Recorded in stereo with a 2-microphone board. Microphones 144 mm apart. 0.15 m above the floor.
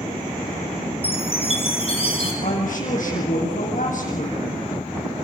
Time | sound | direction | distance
1.0 | a chime | 40° left (ahead or behind) | 4 m
2.4 | a woman speaking | 65° left (ahead or behind) | 6 m